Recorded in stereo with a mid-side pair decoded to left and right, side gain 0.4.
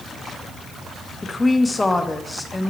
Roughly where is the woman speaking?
Ahead.